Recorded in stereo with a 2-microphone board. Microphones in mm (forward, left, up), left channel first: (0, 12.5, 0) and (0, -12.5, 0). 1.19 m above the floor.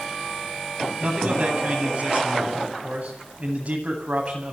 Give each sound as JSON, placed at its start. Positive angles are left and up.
{"t": 1.0, "sound": "a man speaking", "side_deg": -50, "distance_m": 9.5}